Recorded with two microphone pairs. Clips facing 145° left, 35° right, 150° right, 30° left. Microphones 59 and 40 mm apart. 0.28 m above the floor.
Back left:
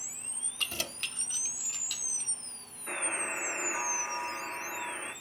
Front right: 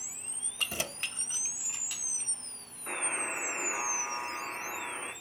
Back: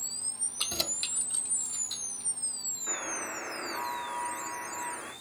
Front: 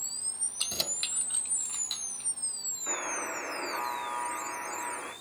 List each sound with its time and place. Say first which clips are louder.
0.6 s keys jangling: front right 1 dB, back 1 dB; 95° right, 1.0 m; by 2.3 s 35° left, 2 m
2.9 s a buzzer: even, front 2 dB; 5° left, 7 m